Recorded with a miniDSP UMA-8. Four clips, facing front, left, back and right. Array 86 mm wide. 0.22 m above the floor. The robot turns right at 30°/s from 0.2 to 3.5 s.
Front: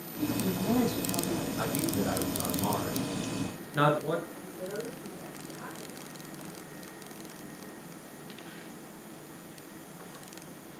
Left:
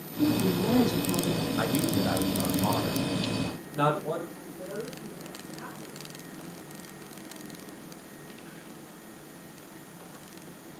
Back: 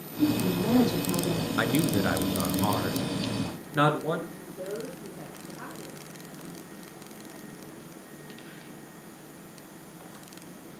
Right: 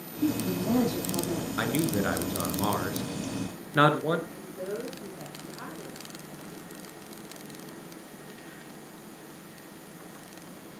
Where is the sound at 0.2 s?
125° left, 9.5 m; by 1.5 s 165° left, 9.5 m.